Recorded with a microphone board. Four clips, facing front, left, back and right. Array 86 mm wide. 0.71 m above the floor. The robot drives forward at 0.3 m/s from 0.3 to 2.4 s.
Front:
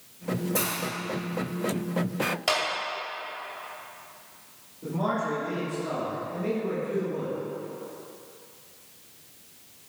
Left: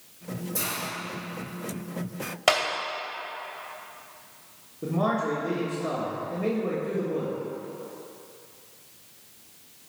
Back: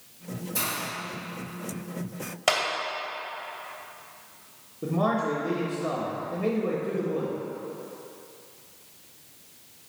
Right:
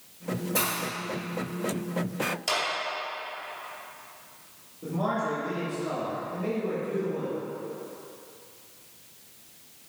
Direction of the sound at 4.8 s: 140° left.